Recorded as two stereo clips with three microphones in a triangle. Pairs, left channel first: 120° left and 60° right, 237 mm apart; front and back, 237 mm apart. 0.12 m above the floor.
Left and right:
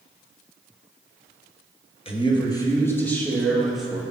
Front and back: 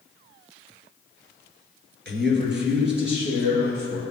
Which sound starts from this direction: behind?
A man speaking, at 2.0 s.